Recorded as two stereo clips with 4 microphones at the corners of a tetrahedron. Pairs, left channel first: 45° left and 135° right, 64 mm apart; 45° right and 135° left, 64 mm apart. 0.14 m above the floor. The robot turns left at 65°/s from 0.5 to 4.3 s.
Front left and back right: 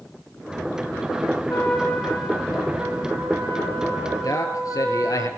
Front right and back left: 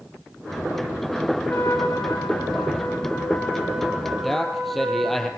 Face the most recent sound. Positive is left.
turn(degrees=40)